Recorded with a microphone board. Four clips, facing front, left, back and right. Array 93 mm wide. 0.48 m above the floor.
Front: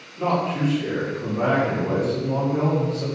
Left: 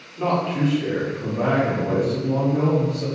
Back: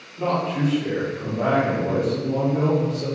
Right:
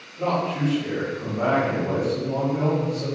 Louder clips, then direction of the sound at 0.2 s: Left 2 dB, even; 80° left.